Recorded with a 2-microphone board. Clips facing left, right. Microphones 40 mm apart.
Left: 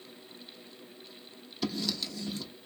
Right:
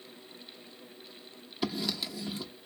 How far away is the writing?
About 0.8 m.